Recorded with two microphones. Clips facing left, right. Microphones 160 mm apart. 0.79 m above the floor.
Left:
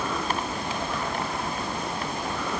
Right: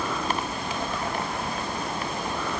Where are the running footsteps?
No running footsteps in this recording.